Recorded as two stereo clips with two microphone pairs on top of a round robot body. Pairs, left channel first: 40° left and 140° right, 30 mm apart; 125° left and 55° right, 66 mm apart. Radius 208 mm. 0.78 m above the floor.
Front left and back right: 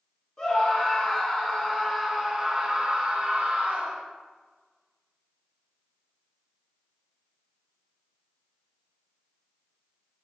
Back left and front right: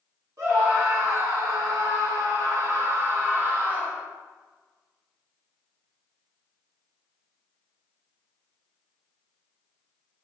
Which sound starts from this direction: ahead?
A scream, at 0.4 s.